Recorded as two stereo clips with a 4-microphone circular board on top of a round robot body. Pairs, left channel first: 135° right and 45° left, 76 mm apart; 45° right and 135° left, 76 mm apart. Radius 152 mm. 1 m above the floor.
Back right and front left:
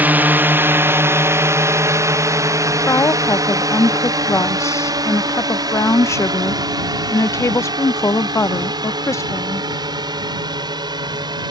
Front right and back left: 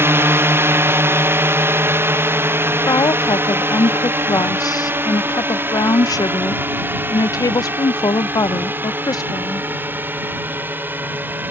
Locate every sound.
0.0 s a drone: 100° left; by 11.5 s 70° left
2.9 s a woman speaking: 85° right